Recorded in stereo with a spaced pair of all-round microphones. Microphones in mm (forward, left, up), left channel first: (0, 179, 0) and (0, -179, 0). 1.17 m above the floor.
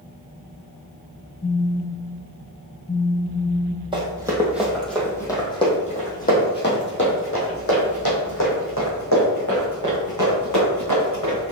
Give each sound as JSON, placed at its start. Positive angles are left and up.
{"t": 1.4, "sound": "a phone buzzing", "side_deg": 20, "distance_m": 0.7}
{"t": 3.9, "sound": "running footsteps", "side_deg": -15, "distance_m": 2.5}